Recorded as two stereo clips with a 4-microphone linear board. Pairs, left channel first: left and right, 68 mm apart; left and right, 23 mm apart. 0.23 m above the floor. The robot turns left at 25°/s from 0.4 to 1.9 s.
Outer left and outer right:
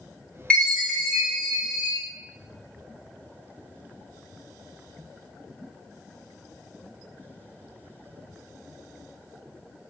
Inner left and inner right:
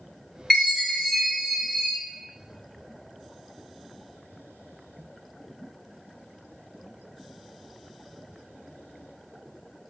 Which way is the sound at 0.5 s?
20° left.